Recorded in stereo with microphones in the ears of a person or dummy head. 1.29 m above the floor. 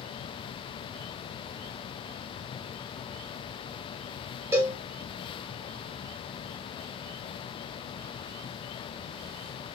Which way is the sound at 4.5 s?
20° right (ahead or behind).